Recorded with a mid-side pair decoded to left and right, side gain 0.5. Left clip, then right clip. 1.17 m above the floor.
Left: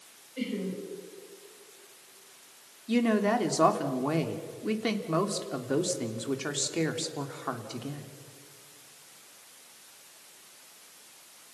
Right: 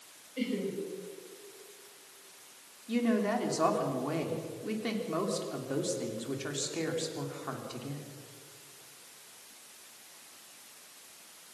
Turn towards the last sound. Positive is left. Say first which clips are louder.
# left 4 dB
turn(degrees=40)